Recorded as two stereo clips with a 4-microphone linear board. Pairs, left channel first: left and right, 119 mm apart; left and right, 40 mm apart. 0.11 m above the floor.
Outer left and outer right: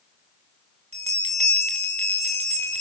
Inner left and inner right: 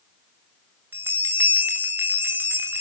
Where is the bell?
65° right (ahead or behind), 2.5 m.